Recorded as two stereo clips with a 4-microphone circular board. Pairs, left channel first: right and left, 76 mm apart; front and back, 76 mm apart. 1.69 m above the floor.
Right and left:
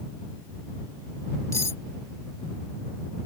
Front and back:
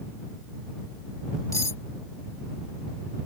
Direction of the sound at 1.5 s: 45° right.